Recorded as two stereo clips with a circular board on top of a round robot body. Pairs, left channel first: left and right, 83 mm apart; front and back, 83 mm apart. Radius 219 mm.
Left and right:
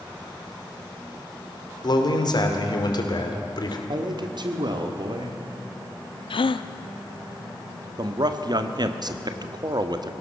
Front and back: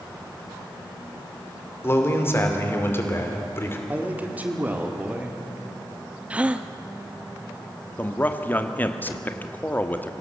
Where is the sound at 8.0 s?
65° right, 1.5 m.